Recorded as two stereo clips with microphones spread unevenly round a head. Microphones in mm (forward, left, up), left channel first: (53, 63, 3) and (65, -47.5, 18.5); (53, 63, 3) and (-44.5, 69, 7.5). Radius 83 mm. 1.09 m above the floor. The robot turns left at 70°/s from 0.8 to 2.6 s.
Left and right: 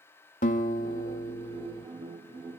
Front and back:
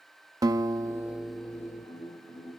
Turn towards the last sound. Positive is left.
turn(degrees=-5)